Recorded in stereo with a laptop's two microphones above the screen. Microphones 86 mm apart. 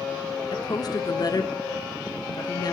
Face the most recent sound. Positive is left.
turn(degrees=50)  # may be behind; listen again after turning